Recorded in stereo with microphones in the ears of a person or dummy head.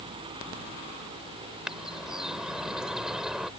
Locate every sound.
1.6 s a bird: centre (ahead or behind)